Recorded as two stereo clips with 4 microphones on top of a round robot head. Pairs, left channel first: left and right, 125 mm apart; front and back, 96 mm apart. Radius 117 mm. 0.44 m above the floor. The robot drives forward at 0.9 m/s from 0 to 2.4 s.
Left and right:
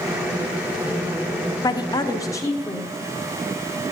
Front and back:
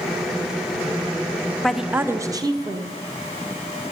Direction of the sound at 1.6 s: 85° left.